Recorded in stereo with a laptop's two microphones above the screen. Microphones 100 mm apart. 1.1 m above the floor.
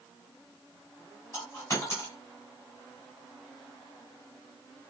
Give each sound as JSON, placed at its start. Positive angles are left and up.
{"t": 1.3, "sound": "a dropped coin", "side_deg": 30, "distance_m": 2.0}